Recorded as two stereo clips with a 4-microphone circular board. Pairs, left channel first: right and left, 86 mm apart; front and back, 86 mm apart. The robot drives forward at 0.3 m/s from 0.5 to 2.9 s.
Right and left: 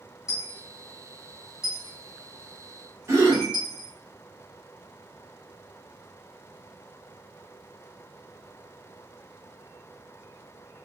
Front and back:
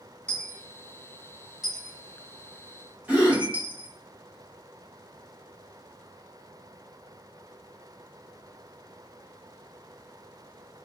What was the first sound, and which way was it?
A dropped coin, 65° right.